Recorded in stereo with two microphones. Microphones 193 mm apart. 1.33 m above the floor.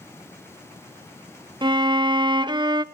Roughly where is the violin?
Right.